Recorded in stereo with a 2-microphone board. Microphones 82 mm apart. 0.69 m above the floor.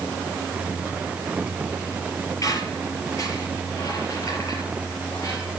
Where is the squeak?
45° left (ahead or behind), 6 m.